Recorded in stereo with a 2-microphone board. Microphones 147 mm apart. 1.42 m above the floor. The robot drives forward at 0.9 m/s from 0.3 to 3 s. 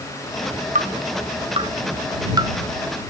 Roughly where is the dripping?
Right.